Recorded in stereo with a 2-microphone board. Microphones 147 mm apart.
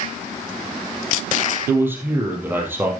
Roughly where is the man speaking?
Centre.